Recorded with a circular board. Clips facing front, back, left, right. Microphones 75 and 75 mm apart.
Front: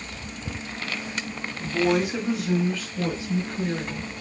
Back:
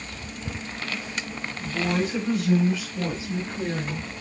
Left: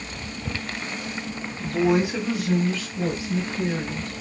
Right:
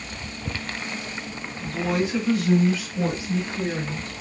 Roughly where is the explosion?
No explosion in this recording.